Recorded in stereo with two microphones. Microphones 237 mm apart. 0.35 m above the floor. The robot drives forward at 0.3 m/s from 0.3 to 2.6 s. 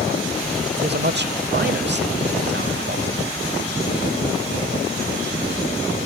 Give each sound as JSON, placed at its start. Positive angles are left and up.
{"t": 0.8, "sound": "a man speaking", "side_deg": -45, "distance_m": 1.2}